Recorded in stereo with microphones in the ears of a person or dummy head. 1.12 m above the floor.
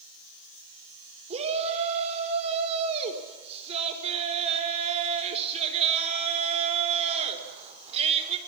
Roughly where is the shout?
Right.